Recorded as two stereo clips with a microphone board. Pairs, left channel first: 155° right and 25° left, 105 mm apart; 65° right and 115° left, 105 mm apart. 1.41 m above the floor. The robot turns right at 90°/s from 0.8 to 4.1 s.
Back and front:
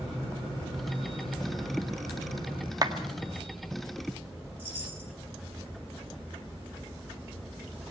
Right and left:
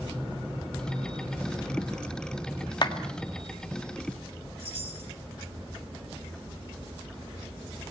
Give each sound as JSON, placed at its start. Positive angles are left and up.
{"t": 2.8, "sound": "a clap", "azimuth_deg": -25, "distance_m": 1.7}
{"t": 4.6, "sound": "a chime", "azimuth_deg": 95, "distance_m": 7.0}